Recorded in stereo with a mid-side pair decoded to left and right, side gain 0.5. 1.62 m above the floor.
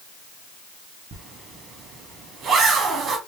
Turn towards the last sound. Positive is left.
turn(degrees=-60)